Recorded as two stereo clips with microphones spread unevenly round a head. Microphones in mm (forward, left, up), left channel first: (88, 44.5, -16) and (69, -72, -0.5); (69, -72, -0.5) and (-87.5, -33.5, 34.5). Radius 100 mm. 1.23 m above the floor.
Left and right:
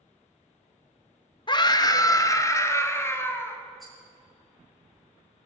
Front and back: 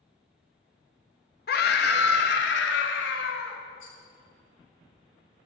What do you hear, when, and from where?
1.5 s a scream: 30° left, 1.3 m; by 3.6 s 10° left, 2.5 m
3.8 s a rattle: 10° right, 5.5 m